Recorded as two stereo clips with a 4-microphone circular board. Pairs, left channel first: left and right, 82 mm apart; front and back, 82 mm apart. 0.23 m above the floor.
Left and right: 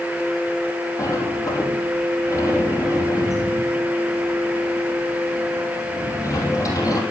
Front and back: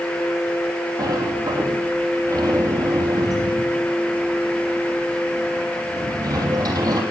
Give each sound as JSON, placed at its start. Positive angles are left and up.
{"t": 1.0, "sound": "a sliding door", "azimuth_deg": 140, "distance_m": 3.0}